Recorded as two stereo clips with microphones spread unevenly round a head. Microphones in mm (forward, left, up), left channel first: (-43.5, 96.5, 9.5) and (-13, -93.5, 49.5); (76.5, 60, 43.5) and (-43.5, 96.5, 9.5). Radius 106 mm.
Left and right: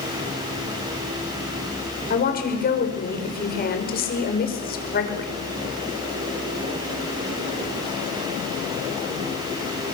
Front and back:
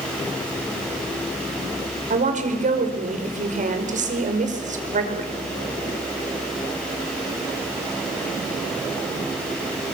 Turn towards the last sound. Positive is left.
turn(degrees=145)